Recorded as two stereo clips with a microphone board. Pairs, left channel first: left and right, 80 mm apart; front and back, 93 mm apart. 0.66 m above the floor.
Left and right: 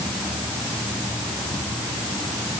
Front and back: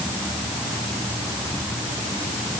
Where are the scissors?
No scissors in this recording.